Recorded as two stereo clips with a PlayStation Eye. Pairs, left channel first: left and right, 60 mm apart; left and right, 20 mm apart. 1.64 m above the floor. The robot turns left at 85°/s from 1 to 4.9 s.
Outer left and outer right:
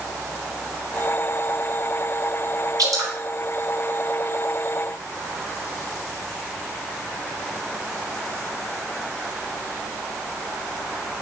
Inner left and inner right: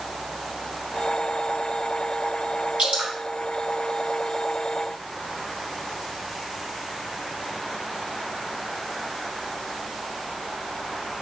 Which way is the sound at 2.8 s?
70° right (ahead or behind).